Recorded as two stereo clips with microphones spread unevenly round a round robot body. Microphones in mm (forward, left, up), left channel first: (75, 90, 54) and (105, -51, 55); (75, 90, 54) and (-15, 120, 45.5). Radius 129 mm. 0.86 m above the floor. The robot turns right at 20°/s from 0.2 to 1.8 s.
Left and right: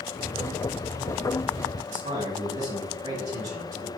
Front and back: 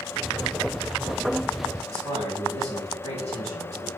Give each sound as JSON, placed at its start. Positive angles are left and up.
{"t": 1.9, "sound": "a man speaking", "azimuth_deg": -135, "distance_m": 2.0}